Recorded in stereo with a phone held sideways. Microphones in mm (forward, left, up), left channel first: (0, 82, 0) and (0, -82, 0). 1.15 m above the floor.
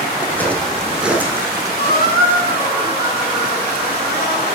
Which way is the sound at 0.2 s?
15° left (ahead or behind).